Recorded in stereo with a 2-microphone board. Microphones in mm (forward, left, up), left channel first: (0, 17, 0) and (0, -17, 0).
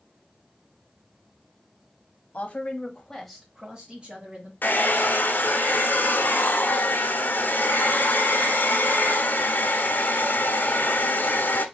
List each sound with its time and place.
2.3 s a woman speaking: 45° left (ahead or behind), 1.2 m; by 4.5 s 35° right (ahead or behind), 1.6 m
4.6 s a hair dryer: 60° left (ahead or behind), 0.9 m